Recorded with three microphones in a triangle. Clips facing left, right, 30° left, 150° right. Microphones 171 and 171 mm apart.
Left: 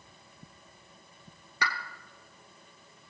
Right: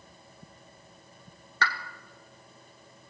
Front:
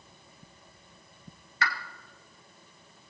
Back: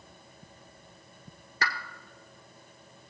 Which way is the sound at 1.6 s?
165° left.